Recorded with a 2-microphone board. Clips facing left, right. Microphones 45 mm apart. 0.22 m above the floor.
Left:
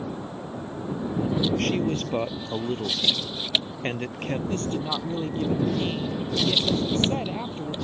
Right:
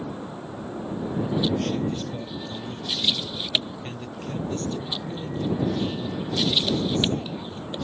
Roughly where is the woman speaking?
Left.